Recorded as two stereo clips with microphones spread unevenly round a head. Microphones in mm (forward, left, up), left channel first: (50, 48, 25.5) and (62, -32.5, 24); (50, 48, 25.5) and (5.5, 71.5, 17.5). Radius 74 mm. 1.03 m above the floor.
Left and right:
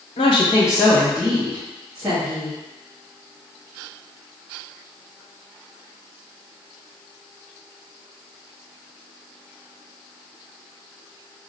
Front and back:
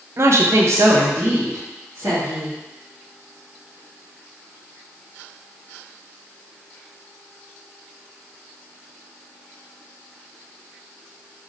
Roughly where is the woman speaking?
Behind left.